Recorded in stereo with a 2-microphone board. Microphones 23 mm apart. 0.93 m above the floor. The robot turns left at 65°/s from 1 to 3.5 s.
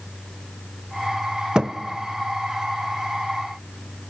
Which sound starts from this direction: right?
A thud, at 1.6 s.